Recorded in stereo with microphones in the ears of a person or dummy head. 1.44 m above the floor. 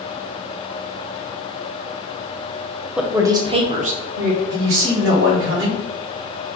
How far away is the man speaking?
About 1.6 m.